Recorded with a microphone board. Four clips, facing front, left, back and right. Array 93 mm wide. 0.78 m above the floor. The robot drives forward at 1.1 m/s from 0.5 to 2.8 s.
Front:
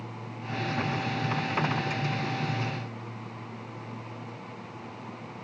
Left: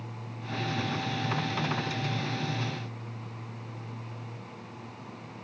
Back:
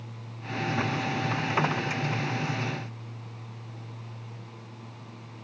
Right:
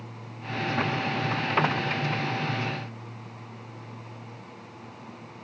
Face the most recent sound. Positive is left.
No sound to turn to.